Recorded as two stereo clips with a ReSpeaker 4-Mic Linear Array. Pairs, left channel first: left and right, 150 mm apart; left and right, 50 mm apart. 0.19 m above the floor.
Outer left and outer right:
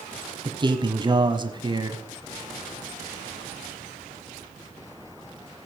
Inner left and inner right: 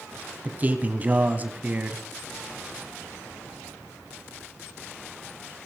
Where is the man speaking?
30° right (ahead or behind), 1.4 m.